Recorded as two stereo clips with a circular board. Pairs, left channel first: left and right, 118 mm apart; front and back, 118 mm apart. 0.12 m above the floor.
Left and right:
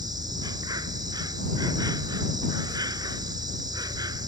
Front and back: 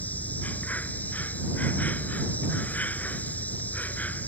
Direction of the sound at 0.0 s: 70° right.